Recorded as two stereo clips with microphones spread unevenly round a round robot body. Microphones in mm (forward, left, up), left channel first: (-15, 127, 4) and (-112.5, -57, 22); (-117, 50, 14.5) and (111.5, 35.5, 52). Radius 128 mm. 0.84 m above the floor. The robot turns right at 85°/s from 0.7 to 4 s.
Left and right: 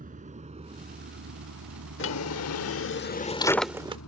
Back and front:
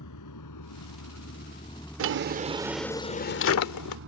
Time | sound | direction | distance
0.0 | a vehicle | 170° right | ?
2.0 | a drawer | 15° left | ?